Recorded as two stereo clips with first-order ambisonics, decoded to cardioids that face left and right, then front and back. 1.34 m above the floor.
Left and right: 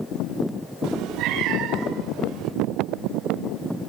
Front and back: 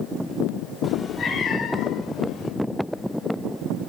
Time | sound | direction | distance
0.8 | a cat meowing | 70° right | 1.5 m